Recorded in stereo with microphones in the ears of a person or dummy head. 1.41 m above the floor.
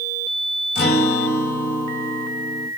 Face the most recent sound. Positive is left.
turn(degrees=50)  # may be behind; listen again after turning